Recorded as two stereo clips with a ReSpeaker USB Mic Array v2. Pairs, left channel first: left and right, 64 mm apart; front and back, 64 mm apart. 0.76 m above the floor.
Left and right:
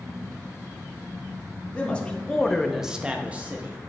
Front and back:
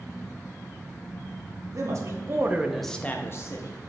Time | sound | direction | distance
1.7 | a man speaking | 160° left | 1.1 m